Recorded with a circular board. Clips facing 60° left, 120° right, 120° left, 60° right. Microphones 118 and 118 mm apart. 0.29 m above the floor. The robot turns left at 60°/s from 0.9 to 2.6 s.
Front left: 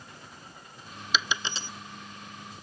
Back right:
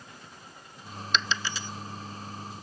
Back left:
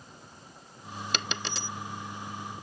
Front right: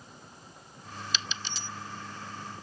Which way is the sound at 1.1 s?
145° left.